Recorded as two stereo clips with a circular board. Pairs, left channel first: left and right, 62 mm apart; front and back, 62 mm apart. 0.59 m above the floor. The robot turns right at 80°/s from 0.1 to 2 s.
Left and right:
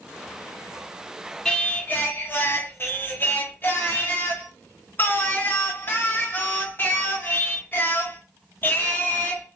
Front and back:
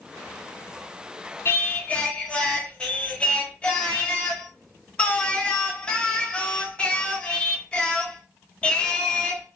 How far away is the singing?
About 0.8 m.